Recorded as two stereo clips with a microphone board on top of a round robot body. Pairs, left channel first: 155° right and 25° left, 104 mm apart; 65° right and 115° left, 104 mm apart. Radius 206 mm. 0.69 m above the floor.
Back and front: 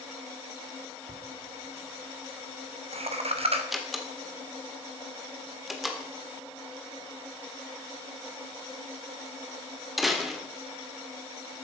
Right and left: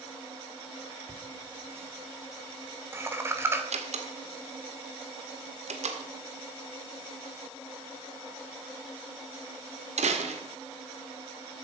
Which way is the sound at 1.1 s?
45° left.